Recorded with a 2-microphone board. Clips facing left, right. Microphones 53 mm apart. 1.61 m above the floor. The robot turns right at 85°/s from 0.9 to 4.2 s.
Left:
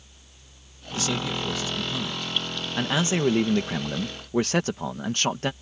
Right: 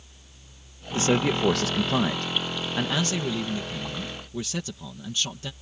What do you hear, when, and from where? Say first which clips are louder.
0.9 s a man speaking: right 5 dB; 155° right; by 5.5 s 125° left